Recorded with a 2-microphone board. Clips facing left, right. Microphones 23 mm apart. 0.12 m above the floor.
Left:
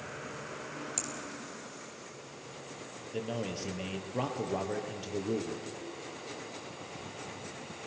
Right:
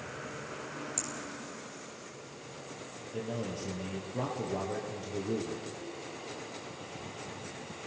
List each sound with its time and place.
1.0 s a finger snap: 15° left (ahead or behind), 3.5 m
3.1 s a man speaking: 45° left (ahead or behind), 3 m